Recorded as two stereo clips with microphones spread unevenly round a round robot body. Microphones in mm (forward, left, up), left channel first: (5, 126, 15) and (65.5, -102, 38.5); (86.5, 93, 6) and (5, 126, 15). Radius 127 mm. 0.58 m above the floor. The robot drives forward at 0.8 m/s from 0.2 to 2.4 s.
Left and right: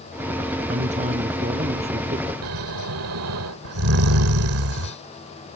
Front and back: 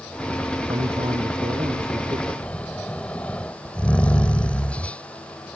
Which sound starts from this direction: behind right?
A man speaking, at 0.7 s.